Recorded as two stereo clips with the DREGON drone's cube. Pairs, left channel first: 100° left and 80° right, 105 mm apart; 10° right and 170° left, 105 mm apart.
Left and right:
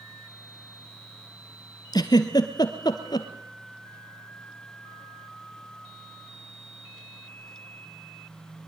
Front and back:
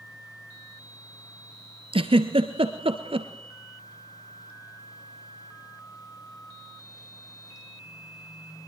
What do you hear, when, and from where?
1.9 s a giggle: 150° left, 1.6 m